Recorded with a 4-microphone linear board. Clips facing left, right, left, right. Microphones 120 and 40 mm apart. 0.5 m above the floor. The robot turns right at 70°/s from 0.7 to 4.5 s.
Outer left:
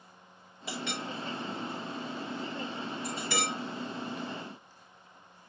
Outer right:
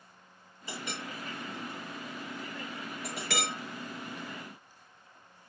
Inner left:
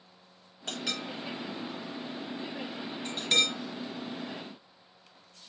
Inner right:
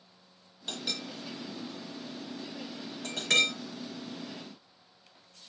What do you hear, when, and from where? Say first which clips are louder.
0.7 s a clink: outer left 3 dB, inner left 2 dB; 80° left, 5.5 m; by 3.5 s 80° right, 5.5 m